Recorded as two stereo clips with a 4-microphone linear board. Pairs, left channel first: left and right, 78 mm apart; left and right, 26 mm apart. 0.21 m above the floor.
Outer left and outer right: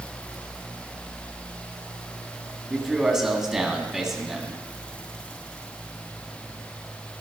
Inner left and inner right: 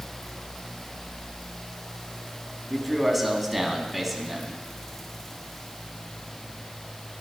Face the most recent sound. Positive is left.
turn(degrees=-5)  # may be behind; listen again after turning